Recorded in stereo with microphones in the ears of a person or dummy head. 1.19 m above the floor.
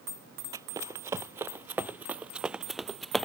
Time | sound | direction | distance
0.5 | running footsteps | 20° right (ahead or behind) | ?